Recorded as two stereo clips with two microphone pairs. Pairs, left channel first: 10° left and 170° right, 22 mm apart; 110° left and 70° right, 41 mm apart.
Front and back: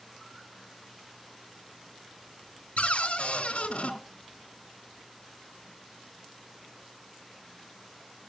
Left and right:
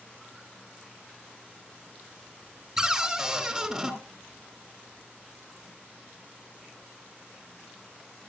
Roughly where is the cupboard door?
Ahead.